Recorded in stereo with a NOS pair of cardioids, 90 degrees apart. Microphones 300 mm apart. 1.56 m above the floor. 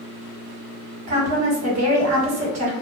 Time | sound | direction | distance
1.1 | a woman speaking | 65° right | 1.6 m